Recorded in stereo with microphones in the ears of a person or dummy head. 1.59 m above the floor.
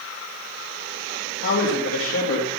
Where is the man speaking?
70° left (ahead or behind), 2.5 m.